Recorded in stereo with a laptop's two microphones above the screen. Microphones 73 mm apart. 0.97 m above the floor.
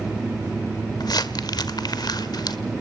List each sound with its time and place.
0.0 s a fan: 10° right (ahead or behind), 5 m
1.0 s crumpling: 65° left (ahead or behind), 1.2 m